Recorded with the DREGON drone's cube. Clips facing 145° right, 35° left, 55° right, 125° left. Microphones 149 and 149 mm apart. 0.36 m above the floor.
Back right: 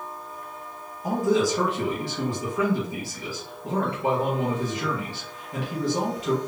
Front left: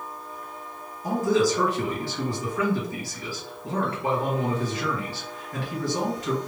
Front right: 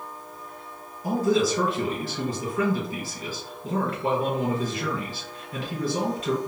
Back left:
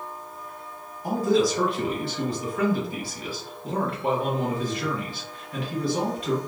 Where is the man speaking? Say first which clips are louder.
Even, back left 1 dB; 75° right, 2.0 m.